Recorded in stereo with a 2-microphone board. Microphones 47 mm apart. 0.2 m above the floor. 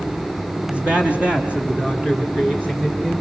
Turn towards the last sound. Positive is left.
turn(degrees=-25)  # may be behind; listen again after turning